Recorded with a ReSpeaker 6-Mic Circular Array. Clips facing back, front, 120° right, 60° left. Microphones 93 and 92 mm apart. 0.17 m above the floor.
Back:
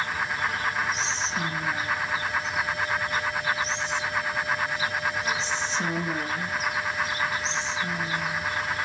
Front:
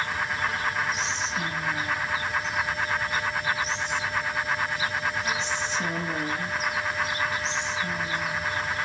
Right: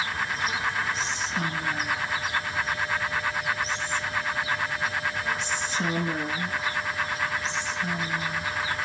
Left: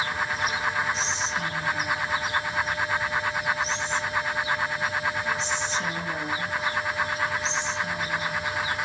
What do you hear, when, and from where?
0.9 s whispering: 135° right, 2 m